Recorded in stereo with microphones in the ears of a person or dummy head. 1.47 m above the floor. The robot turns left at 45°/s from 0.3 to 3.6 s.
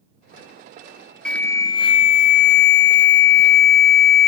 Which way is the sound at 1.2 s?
Straight behind.